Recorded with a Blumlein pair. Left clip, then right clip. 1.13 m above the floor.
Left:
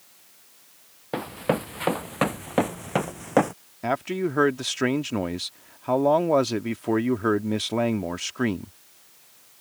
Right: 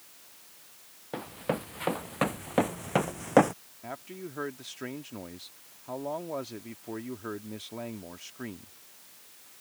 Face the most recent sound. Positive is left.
turn(degrees=35)